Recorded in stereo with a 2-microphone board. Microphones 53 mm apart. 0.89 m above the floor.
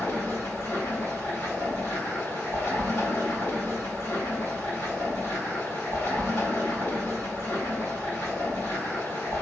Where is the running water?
65° left (ahead or behind), 2 m.